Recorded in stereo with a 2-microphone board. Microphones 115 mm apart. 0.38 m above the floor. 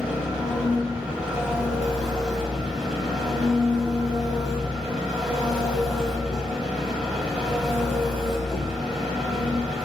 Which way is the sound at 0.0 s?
5° right (ahead or behind).